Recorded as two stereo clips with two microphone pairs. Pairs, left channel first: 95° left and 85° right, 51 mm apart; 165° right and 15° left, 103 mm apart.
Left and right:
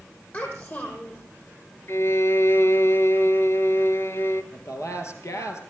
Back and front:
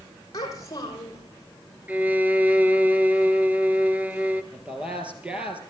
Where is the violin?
85° left, 0.8 m.